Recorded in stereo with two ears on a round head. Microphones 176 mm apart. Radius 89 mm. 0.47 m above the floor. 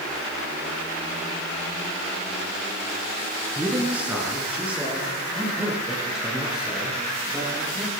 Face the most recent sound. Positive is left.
turn(degrees=-5)  # may be behind; listen again after turning